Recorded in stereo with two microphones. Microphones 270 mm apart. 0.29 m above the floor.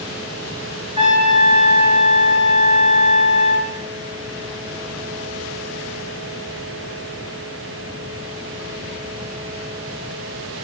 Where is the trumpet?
25° right (ahead or behind), 1.0 m.